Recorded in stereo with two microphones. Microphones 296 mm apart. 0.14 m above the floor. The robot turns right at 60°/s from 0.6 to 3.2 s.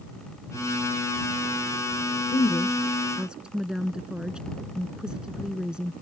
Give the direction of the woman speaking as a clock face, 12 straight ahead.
8 o'clock.